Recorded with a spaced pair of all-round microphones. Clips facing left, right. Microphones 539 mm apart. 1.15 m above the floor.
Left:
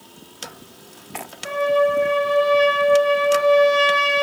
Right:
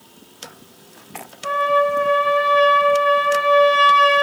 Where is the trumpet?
75° right (ahead or behind), 1.0 m.